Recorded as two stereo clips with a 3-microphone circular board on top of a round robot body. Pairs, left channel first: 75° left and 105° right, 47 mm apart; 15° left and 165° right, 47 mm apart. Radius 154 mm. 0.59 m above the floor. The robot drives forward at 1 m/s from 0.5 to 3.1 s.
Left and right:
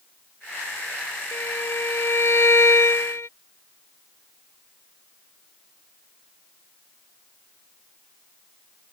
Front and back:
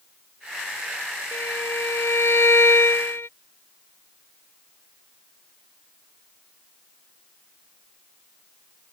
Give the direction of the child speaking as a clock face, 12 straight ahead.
I don't hear a child speaking.